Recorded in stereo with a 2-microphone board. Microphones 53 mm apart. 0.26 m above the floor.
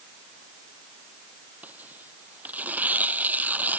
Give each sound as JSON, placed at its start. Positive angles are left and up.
{"t": 1.6, "sound": "tearing paper", "side_deg": -30}